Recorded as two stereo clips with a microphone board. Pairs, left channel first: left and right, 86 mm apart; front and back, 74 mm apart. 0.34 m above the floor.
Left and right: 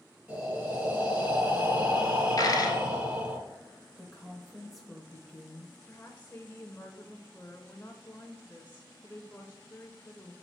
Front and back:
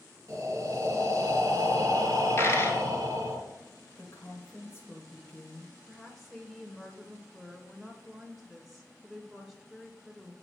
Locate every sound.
0.3 s breathing: 155° right, 2.5 m
2.4 s a dropped coin: 50° left, 1.2 m
4.0 s a woman speaking: straight ahead, 0.9 m
5.9 s a woman speaking: 95° left, 0.9 m